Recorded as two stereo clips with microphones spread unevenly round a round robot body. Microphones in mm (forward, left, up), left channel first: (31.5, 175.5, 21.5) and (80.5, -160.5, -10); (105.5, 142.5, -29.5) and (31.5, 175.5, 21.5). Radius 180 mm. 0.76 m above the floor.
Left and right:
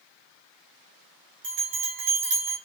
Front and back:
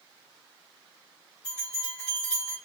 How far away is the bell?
About 1.6 m.